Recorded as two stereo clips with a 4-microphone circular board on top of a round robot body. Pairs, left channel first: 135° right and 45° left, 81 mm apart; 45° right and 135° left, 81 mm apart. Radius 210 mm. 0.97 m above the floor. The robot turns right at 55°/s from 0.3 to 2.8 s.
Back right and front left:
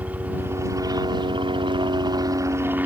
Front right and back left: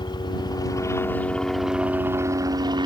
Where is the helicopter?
25° right; by 2.9 s 115° left.